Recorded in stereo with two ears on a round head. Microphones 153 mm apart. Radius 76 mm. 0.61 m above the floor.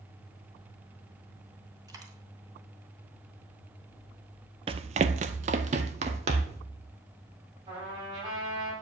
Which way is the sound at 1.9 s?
20° right (ahead or behind).